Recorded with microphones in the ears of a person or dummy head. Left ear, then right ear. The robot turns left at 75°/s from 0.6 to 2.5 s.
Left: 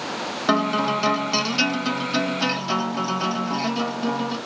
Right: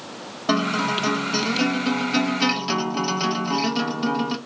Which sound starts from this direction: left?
A guitar, at 0.5 s.